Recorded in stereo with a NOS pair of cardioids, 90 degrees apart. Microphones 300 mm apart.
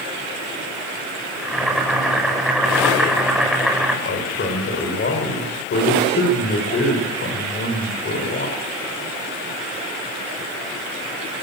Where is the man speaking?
40° left, 7 m.